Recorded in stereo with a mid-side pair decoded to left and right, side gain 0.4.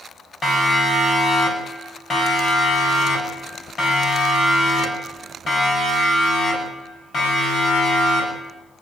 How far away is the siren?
About 10 m.